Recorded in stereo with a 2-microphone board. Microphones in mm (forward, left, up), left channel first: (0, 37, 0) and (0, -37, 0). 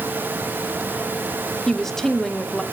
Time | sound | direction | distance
1.7 | a woman speaking | 5° left (ahead or behind) | 0.9 m